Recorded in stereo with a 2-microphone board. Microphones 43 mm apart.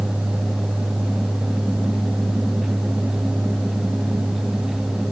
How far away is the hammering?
I don't hear hammering.